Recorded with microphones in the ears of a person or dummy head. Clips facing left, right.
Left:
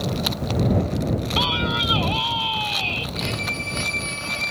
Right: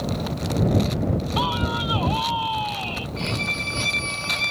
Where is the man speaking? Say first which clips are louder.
Even; 25° left (ahead or behind).